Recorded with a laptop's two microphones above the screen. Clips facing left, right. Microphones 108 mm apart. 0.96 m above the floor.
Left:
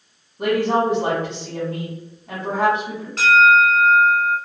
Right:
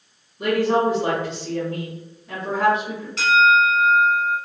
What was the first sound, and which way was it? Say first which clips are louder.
A woman speaking: even; 65° left (ahead or behind).